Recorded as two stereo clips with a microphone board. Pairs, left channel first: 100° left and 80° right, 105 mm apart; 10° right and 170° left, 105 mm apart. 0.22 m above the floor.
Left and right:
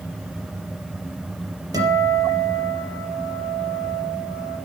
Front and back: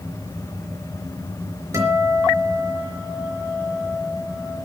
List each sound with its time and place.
1.7 s a guitar: 130° right, 4 m